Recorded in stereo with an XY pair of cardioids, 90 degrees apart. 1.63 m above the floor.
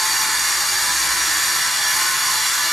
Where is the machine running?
5° left, 0.9 m.